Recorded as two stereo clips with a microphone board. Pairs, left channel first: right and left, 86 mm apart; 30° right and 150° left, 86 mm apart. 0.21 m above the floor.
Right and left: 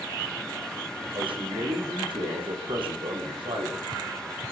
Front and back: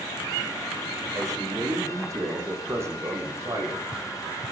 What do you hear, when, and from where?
1.1 s a man speaking: 100° left, 8.5 m; by 3.8 s 90° left, 8 m